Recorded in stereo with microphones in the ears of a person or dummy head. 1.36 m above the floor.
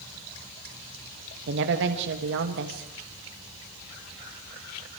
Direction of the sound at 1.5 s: 70° right (ahead or behind).